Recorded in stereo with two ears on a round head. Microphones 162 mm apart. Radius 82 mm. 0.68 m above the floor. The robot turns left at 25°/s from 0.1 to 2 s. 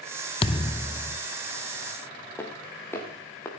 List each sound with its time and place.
0.4 s a thud: 30° left (ahead or behind), 0.5 m; by 1.2 s 10° left (ahead or behind), 0.5 m
2.4 s footsteps: 10° left (ahead or behind), 5.5 m; by 3.5 s 15° left (ahead or behind), 5 m